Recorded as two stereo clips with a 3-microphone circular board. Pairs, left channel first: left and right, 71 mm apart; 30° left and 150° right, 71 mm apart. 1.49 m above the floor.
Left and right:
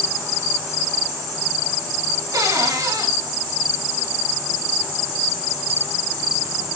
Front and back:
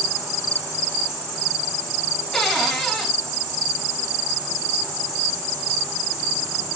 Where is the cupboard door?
55° right, 4.5 m.